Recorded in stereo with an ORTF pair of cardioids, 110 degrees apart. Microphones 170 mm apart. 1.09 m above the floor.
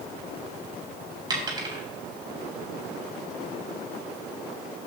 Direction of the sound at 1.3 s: 25° right.